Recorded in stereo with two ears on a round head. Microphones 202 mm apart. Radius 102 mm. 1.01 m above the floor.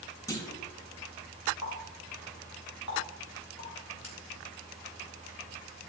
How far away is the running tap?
About 3.5 m.